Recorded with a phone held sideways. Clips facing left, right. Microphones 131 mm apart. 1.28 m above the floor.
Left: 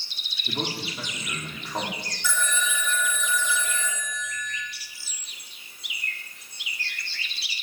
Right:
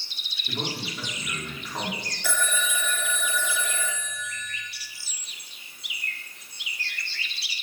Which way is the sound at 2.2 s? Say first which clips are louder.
Even; 60° right (ahead or behind).